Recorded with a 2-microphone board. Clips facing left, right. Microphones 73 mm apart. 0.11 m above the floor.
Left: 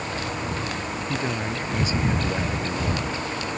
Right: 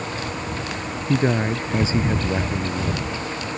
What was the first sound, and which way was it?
A man speaking, 40° right (ahead or behind).